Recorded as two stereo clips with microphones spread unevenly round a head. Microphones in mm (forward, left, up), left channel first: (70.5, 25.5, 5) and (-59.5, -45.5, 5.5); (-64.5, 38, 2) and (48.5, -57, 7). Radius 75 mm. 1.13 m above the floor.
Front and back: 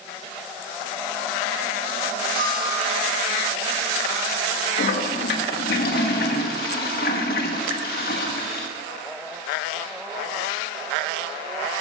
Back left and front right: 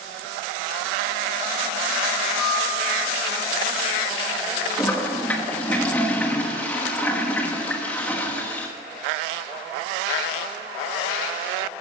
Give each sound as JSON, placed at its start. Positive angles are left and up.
{"t": 2.4, "sound": "a bell", "azimuth_deg": 180, "distance_m": 6.0}
{"t": 4.8, "sound": "a toilet flushing", "azimuth_deg": 60, "distance_m": 1.3}